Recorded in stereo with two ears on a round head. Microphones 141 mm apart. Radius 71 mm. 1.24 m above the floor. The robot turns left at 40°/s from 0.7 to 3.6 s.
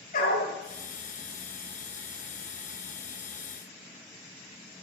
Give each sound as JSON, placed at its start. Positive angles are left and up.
{"t": 0.1, "sound": "a dog barking", "side_deg": 55, "distance_m": 6.5}